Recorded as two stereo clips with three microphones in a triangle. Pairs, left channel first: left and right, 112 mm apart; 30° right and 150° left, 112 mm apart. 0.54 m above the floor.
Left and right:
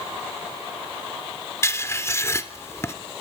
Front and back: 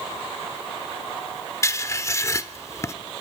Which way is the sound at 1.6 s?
30° left.